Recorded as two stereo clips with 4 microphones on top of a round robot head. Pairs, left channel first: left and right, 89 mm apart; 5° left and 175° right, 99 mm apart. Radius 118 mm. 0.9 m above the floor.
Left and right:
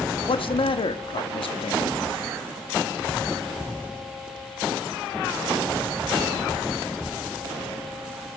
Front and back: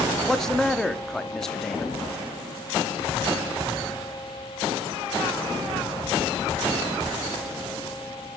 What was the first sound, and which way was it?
A man speaking, 90° left.